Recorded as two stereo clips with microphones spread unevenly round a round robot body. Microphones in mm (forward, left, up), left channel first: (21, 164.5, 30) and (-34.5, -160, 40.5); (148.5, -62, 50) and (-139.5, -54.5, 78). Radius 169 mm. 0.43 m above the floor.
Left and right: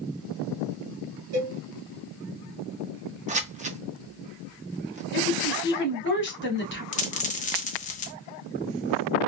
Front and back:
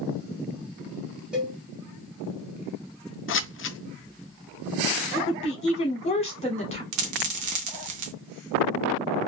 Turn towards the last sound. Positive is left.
turn(degrees=150)